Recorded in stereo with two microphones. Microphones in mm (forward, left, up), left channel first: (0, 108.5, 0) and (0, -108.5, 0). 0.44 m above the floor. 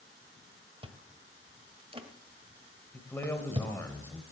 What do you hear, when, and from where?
0.8 s chewing: 25° right (ahead or behind), 1.7 m
2.9 s a man speaking: 10° left (ahead or behind), 1.5 m